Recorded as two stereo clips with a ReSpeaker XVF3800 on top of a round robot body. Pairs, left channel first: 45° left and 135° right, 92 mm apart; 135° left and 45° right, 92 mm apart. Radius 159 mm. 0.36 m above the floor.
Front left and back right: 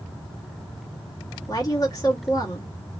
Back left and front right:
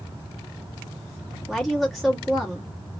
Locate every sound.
1.5 s a woman speaking: 45° left, 1.7 m